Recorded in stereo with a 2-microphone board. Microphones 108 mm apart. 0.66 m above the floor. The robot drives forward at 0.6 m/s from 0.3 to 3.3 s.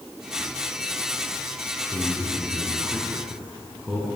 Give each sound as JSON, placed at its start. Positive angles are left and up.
{"t": 1.9, "sound": "a man speaking", "side_deg": -10, "distance_m": 9.5}